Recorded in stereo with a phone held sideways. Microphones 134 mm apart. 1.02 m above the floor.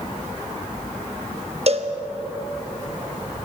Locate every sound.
1.7 s a cowbell: 50° right (ahead or behind), 1.3 m